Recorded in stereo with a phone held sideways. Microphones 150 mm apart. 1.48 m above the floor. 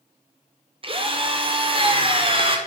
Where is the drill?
35° right (ahead or behind), 0.9 m.